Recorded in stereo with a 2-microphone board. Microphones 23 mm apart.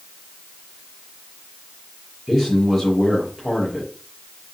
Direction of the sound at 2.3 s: Centre (ahead or behind).